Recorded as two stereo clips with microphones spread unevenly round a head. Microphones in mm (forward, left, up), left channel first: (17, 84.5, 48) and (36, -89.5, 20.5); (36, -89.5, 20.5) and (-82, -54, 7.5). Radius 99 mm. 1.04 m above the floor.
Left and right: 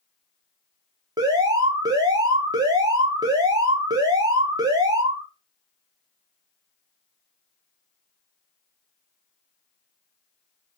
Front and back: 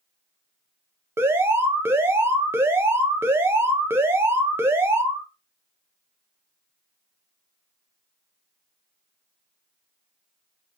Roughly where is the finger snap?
I don't hear a finger snap.